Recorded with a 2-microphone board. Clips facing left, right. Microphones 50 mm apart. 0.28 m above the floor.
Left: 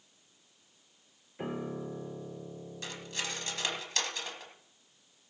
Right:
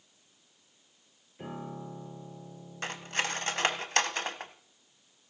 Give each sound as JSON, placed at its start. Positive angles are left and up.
{"t": 1.4, "sound": "a piano", "side_deg": 30, "distance_m": 1.2}
{"t": 2.8, "sound": "cutlery clinking", "side_deg": -50, "distance_m": 1.1}